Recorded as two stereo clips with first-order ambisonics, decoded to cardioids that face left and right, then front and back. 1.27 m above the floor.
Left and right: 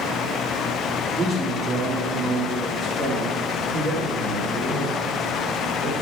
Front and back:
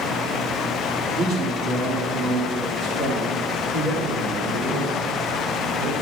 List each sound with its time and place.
1.1 s a man speaking: 170° right, 2.5 m; by 6.0 s 145° left, 4 m